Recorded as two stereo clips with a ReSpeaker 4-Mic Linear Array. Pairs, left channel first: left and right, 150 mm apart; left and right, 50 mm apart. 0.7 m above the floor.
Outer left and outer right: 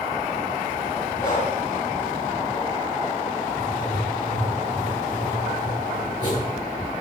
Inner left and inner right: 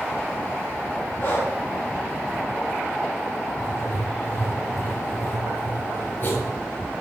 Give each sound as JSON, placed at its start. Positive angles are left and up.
{"t": 1.2, "sound": "breathing", "side_deg": 60, "distance_m": 7.5}
{"t": 3.6, "sound": "writing", "side_deg": 55, "distance_m": 8.0}